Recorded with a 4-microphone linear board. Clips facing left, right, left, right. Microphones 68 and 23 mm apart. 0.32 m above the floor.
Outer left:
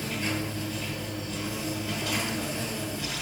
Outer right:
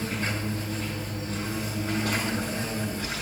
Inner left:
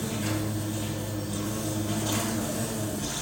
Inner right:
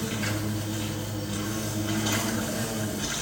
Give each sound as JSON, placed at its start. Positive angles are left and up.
{"t": 0.0, "sound": "an insect", "side_deg": -45, "distance_m": 5.5}